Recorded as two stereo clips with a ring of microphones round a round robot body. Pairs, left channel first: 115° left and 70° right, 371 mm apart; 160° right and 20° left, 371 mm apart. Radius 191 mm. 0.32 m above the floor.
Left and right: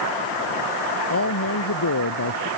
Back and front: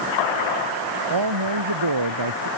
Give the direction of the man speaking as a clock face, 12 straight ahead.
10 o'clock.